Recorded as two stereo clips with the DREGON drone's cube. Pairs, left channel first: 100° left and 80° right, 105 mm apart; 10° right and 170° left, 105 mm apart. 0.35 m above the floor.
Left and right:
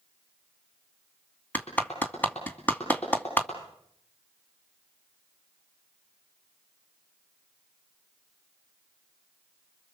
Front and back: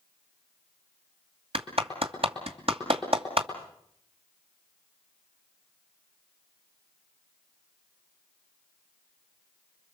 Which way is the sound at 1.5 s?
175° left.